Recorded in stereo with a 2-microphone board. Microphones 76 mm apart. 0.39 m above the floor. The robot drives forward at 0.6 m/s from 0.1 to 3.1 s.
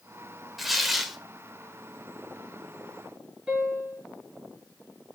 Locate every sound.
0.6 s tearing paper: centre (ahead or behind), 1.3 m
3.5 s a piano: 10° right (ahead or behind), 5.5 m